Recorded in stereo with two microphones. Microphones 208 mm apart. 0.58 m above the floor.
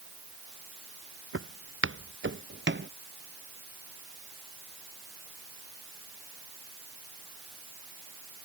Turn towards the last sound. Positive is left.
turn(degrees=-60)  # may be behind; listen again after turning